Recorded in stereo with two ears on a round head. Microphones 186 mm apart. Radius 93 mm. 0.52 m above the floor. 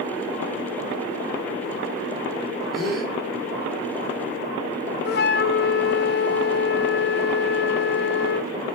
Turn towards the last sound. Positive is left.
turn(degrees=50)  # may be behind; listen again after turning